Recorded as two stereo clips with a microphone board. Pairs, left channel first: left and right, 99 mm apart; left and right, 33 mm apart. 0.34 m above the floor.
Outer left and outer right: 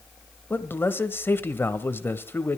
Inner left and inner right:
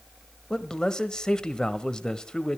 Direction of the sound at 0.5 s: 20° left (ahead or behind).